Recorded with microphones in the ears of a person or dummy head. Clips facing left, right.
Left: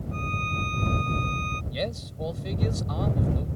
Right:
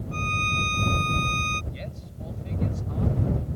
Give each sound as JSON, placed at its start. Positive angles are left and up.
{"t": 0.1, "sound": "a violin", "side_deg": -55}
{"t": 1.7, "sound": "a man speaking", "side_deg": 80}